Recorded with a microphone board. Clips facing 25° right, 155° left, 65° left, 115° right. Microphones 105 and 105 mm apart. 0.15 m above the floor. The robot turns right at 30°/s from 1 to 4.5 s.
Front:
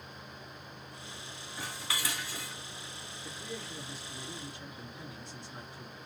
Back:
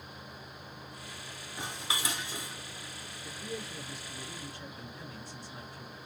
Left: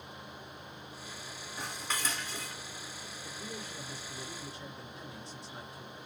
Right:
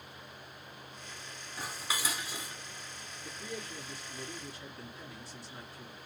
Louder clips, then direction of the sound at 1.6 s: Back 2 dB, even; 165° left.